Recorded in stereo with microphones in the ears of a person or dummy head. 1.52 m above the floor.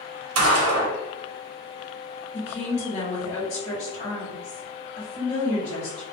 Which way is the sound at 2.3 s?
30° left (ahead or behind).